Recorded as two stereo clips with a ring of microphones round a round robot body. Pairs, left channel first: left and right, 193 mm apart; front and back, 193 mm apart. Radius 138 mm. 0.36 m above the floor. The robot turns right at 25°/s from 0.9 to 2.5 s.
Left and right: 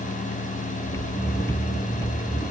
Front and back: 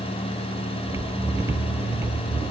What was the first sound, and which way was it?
Only background noise.